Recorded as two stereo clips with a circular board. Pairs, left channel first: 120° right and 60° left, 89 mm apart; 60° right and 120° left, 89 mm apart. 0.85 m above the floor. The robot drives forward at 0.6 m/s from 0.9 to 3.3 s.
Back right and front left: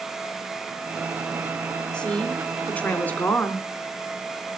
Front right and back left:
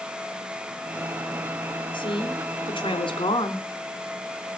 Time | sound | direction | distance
1.9 | a woman speaking | 40° right | 3.5 m